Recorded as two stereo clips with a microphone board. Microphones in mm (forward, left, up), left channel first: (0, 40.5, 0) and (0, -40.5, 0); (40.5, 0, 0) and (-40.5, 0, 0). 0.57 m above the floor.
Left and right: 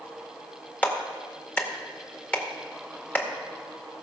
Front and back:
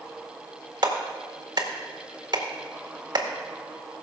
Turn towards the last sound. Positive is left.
turn(degrees=155)